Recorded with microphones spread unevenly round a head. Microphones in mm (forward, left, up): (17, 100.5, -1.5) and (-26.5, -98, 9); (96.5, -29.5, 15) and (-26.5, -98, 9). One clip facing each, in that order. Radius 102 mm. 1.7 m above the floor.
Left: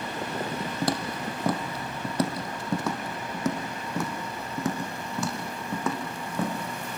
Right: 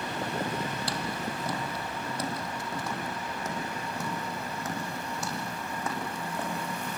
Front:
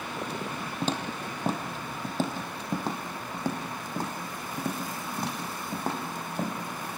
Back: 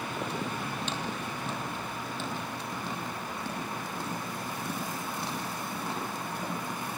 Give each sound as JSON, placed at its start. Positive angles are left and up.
{"t": 0.8, "sound": "footsteps", "azimuth_deg": 65, "distance_m": 2.0}